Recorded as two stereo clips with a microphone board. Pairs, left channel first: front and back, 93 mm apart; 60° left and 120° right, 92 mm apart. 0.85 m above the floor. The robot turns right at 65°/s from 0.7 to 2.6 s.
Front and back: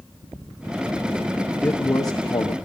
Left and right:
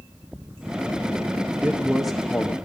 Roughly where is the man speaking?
Ahead right.